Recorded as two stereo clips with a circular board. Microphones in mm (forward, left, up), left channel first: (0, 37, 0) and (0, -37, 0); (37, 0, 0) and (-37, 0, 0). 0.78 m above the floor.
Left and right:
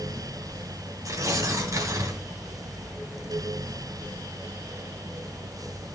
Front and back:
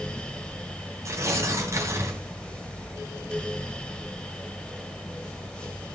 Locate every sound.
1.1 s tearing paper: 135° right, 2.5 m